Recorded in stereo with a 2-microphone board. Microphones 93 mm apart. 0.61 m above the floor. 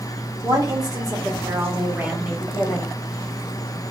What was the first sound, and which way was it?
A woman speaking, 45° right (ahead or behind).